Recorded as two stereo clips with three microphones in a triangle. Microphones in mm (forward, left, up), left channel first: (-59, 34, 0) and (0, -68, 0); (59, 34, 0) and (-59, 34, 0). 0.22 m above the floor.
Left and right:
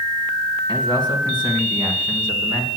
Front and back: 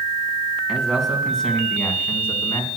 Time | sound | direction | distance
0.7 | a man speaking | 95° right | 2.5 m